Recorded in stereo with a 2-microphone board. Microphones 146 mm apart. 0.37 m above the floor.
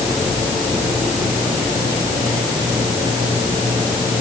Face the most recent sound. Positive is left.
No sound to turn to.